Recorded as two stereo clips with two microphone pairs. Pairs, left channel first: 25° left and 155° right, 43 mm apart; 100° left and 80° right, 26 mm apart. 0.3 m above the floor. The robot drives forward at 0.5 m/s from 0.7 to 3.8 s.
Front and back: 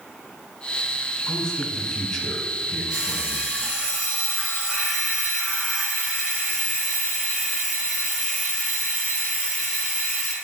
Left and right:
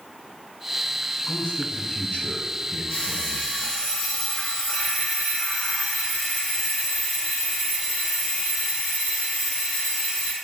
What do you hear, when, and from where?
1.3 s a man speaking: 90° left, 1.7 m; by 3.5 s 130° left, 2.0 m
2.9 s an alarm clock: 135° left, 3 m; by 10.3 s 140° left, 3.5 m